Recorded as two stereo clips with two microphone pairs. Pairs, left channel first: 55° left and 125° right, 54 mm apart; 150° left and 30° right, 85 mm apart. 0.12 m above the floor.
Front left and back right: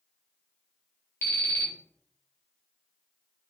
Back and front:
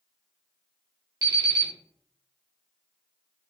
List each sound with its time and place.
1.2 s an alarm clock: 15° left, 1.0 m